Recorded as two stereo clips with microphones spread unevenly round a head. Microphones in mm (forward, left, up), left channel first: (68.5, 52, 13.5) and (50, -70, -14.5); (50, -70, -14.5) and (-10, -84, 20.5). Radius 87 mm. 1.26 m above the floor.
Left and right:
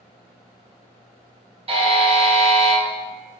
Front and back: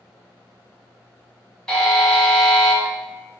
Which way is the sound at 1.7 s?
60° right.